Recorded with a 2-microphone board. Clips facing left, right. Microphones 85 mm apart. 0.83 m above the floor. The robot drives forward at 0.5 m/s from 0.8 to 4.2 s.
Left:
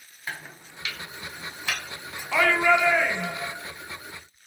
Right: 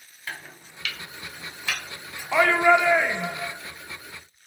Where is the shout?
20° right (ahead or behind), 0.5 m; by 3.5 s 15° right (ahead or behind), 0.6 m.